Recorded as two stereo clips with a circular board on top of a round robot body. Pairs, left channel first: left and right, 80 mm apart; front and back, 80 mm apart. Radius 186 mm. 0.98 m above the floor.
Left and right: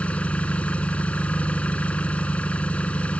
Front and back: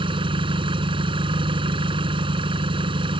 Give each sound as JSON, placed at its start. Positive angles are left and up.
{"t": 0.0, "sound": "an engine running", "azimuth_deg": 165}